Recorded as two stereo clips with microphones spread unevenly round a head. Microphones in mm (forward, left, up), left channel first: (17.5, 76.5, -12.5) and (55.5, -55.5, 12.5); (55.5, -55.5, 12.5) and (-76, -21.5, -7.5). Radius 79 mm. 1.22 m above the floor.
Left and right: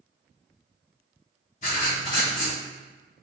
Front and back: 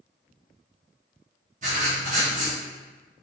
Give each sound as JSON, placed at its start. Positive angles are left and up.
{"t": 1.6, "sound": "writing", "azimuth_deg": 140, "distance_m": 1.1}